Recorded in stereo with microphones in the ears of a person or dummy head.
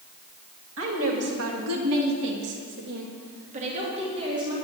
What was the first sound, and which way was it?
A woman speaking, 75° right (ahead or behind).